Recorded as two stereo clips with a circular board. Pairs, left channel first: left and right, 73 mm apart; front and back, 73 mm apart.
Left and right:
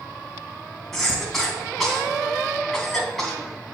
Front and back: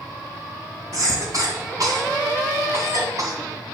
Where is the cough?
175° left, 2.5 m.